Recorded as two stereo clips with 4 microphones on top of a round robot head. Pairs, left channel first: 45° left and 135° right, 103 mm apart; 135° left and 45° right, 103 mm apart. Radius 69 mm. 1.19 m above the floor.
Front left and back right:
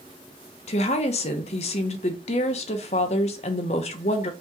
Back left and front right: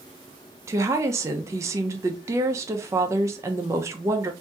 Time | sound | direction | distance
0.7 | a woman speaking | 20° left | 0.6 m